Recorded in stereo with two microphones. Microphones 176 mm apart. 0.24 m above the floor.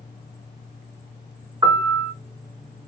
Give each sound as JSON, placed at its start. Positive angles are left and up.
{"t": 1.6, "sound": "a piano", "side_deg": -20, "distance_m": 1.4}